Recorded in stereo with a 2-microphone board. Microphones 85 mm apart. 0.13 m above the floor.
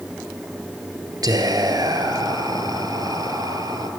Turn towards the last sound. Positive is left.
turn(degrees=-50)  # may be behind; listen again after turning